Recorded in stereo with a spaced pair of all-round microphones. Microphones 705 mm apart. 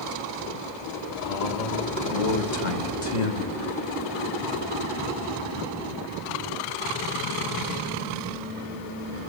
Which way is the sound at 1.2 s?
50° left (ahead or behind).